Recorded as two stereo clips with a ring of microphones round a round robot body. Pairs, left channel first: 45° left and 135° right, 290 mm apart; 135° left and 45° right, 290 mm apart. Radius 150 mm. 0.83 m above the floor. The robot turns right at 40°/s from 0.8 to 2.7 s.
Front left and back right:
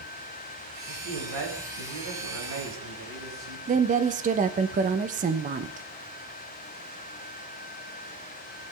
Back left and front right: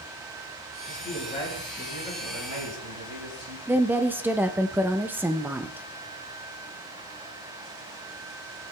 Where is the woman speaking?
120° right, 0.6 m.